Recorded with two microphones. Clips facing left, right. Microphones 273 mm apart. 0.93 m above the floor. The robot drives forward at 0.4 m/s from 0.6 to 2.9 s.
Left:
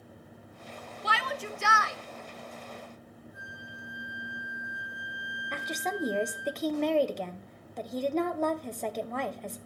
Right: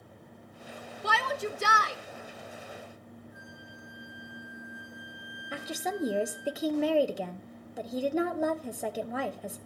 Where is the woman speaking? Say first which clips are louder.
Right 1 dB; 5° right (ahead or behind), 0.9 m.